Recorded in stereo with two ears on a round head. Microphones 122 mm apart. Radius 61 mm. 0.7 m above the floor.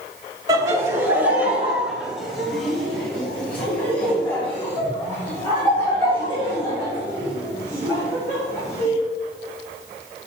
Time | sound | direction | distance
0.5 | laughter | 25° right (ahead or behind) | 2 m